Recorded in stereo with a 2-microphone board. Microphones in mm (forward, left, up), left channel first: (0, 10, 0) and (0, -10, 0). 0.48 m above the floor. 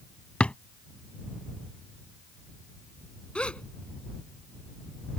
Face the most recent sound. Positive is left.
turn(degrees=65)  # may be behind; listen again after turning